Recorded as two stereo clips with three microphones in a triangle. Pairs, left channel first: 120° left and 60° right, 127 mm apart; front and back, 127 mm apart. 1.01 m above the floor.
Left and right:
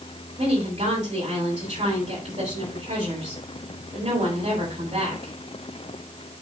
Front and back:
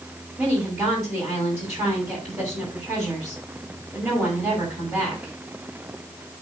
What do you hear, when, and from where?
0.4 s a woman speaking: 95° right, 6 m